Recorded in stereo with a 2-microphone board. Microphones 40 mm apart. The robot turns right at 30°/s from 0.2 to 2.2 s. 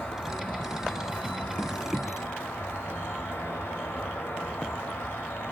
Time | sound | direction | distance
0.0 | an insect | 35° left | 0.8 m